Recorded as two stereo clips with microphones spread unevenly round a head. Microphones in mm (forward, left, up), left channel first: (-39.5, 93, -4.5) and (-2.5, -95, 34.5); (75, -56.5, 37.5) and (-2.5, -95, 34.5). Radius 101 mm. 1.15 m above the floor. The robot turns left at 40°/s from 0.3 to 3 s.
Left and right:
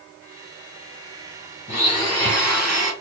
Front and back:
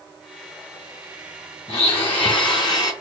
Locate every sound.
1.7 s a blender: 40° left, 3.5 m; by 2.9 s 10° right, 3.5 m